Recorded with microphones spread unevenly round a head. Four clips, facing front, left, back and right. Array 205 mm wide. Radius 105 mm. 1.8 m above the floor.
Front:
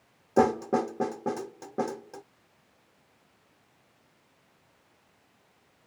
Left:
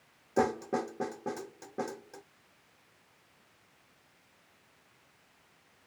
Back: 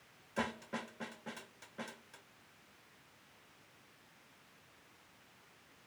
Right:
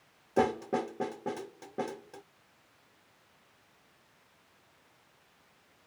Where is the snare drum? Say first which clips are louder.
Right 1 dB, front 17 dB; 5° right.